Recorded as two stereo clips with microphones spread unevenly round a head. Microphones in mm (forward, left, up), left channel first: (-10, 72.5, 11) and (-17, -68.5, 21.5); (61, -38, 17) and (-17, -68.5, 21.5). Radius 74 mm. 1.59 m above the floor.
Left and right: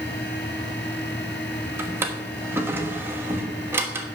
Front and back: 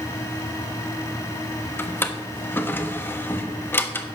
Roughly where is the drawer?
Ahead right.